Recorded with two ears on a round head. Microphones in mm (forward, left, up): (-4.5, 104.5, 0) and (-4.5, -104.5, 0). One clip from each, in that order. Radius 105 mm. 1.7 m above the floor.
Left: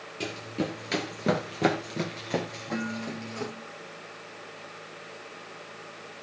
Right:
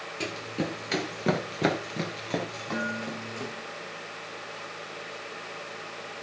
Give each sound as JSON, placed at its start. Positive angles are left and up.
{"t": 0.2, "sound": "running footsteps", "side_deg": -10, "distance_m": 1.9}
{"t": 2.7, "sound": "dishes clattering", "side_deg": -80, "distance_m": 6.5}